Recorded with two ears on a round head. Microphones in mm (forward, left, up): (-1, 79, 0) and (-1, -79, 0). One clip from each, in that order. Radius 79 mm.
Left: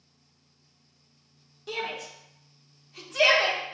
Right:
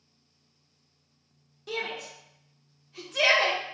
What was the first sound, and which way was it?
A shout, 5° left (ahead or behind).